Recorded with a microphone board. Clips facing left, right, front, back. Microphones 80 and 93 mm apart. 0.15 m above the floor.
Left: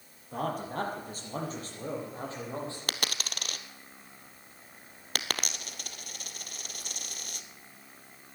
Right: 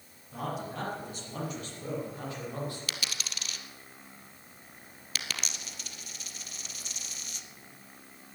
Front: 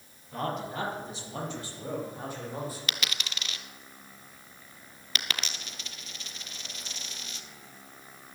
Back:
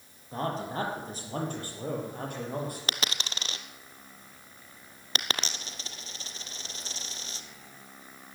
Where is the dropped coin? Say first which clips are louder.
Left 4 dB, back 2 dB; 125° left, 0.9 m.